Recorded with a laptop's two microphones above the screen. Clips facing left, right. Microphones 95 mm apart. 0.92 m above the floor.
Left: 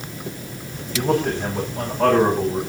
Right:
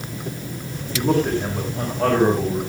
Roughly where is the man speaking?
Centre.